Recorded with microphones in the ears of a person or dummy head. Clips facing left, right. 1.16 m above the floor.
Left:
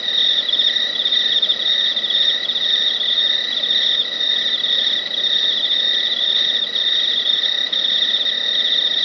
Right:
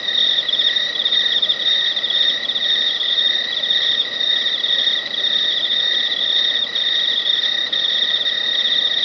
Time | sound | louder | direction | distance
0.0 | an insect | right 1 dB | centre (ahead or behind) | 0.9 m